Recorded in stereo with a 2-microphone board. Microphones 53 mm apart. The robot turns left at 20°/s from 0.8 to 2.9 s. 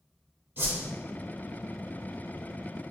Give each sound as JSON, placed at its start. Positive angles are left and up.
{"t": 0.6, "sound": "a whoosh", "side_deg": -50, "distance_m": 0.8}